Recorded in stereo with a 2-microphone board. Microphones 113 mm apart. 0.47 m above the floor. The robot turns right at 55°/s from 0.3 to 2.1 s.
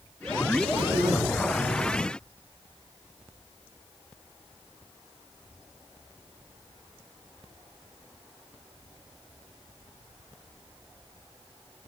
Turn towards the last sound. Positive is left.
turn(degrees=15)